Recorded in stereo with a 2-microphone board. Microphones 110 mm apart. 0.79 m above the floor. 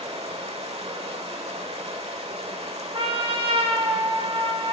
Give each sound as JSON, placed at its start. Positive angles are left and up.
{"t": 0.0, "sound": "running water", "side_deg": -65, "distance_m": 1.0}
{"t": 2.9, "sound": "a trumpet", "side_deg": -55, "distance_m": 0.9}